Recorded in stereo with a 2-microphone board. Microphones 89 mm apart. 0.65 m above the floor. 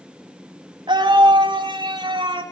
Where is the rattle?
No rattle in this recording.